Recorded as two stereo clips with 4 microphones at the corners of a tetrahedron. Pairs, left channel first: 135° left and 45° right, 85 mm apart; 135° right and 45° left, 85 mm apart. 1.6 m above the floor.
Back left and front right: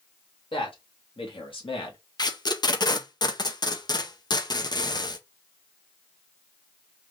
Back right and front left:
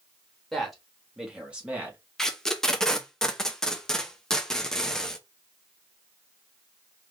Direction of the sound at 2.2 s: 145° left.